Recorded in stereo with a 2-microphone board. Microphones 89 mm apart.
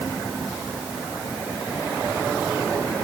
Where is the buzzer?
I don't hear a buzzer.